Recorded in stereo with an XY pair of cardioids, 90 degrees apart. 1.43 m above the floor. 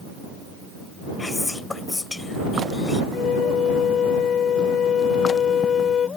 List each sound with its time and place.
1.2 s whispering: 25° left
3.1 s a flute: 70° left